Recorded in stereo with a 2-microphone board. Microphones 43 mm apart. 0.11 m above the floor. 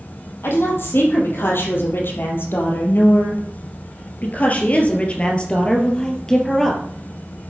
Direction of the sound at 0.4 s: 65° left (ahead or behind).